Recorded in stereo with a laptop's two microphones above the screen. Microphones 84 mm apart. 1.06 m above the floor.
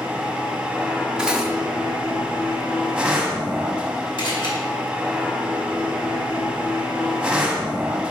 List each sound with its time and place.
0.0 s a machine running: 10° right (ahead or behind), 1.4 m
1.2 s cutlery clinking: 10° right (ahead or behind), 0.8 m
4.2 s a camera shutter: 65° left (ahead or behind), 2.5 m